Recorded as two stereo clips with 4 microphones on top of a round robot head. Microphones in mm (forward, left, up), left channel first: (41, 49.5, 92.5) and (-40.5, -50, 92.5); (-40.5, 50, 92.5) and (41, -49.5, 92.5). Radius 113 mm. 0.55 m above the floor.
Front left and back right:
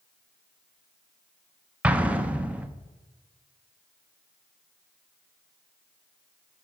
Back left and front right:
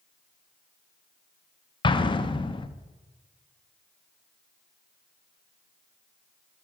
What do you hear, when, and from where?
1.8 s an explosion: 155° left, 0.5 m